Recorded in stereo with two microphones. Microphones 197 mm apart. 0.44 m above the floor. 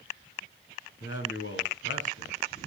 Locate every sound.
1.0 s a man speaking: 75° left (ahead or behind), 4 m